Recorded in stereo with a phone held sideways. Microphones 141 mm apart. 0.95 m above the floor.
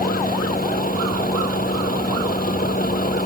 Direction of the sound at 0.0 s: 90° left.